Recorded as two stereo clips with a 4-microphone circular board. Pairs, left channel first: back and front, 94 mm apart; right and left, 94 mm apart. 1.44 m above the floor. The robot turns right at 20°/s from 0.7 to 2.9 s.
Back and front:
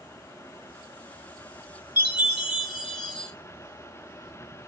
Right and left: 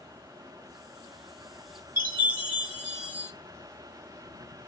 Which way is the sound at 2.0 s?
145° left.